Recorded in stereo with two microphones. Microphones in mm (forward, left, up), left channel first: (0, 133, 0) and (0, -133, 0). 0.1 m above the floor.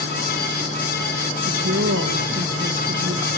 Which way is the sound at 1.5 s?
55° right (ahead or behind).